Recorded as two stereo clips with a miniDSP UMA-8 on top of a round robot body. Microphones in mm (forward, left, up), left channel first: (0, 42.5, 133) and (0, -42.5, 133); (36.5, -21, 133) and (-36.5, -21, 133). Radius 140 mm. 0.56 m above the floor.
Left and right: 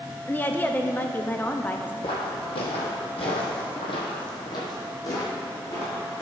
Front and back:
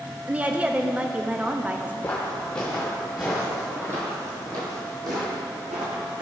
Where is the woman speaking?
130° left, 0.7 m.